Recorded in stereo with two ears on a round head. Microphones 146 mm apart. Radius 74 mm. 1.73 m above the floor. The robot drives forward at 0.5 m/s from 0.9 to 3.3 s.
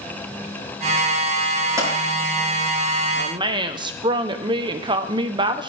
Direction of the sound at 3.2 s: 30° right (ahead or behind).